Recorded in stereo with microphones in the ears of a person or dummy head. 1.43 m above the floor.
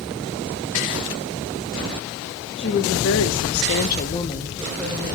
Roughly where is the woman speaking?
Left.